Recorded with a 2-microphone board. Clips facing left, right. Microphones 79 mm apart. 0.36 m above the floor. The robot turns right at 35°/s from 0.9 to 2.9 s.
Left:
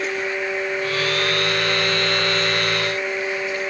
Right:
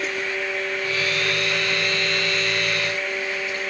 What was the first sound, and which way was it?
Only background noise.